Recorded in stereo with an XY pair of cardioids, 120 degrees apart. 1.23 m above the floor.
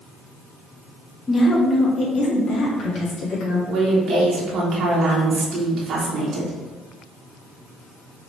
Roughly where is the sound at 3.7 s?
Ahead right.